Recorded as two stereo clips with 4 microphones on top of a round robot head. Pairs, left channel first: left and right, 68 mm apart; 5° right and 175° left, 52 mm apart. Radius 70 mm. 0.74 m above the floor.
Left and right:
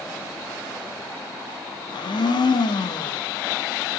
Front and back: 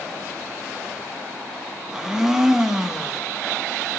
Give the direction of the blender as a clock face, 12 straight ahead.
9 o'clock.